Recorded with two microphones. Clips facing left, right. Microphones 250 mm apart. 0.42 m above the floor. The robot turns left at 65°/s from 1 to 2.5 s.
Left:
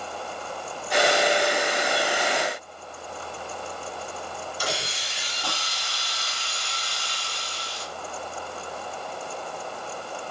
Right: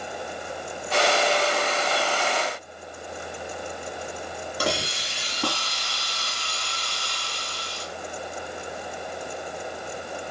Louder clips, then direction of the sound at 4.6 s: Right 7 dB; 65° right (ahead or behind).